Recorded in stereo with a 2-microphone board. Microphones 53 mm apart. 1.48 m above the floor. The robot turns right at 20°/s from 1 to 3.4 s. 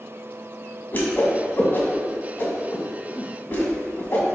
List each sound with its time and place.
0.9 s a whoosh: 35° left (ahead or behind), 1.8 m; by 4.2 s 45° left (ahead or behind), 1.8 m